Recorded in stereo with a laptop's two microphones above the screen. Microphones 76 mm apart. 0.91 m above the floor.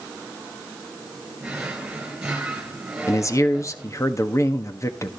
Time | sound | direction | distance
1.4 | a drawer | 10° right (ahead or behind) | 5 m
3.1 | a man speaking | 40° left (ahead or behind) | 1.4 m